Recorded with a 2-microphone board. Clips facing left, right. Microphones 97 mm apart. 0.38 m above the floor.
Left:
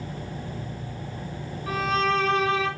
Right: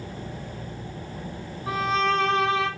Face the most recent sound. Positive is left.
turn(degrees=-25)  # may be behind; listen again after turning